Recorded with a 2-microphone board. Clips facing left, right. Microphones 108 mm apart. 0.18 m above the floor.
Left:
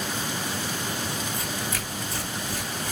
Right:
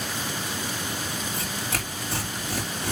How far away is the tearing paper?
About 4 m.